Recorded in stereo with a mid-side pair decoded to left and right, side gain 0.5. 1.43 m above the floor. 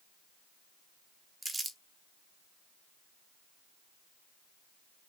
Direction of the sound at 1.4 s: 25° right.